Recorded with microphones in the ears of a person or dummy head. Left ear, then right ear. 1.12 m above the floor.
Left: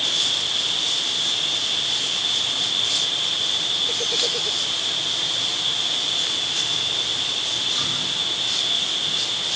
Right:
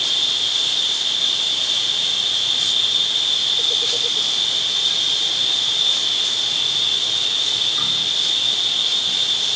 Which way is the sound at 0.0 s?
70° right (ahead or behind).